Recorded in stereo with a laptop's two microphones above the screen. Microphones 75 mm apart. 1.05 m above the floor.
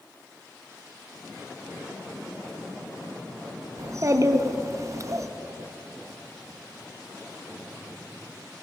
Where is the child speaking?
45° right (ahead or behind), 0.7 m.